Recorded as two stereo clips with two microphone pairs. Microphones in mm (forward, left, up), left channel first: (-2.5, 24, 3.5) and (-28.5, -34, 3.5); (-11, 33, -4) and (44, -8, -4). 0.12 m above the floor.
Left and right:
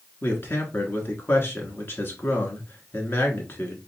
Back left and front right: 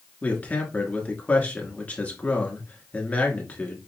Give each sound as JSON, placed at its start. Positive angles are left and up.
{"t": 0.2, "sound": "a man speaking", "azimuth_deg": 90, "distance_m": 1.3}